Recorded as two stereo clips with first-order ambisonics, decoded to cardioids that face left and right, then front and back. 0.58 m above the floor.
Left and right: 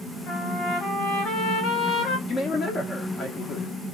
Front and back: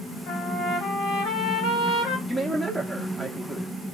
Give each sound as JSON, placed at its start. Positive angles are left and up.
{"t": 0.3, "sound": "a trumpet", "azimuth_deg": 35, "distance_m": 1.7}
{"t": 2.3, "sound": "a man speaking", "azimuth_deg": 90, "distance_m": 0.6}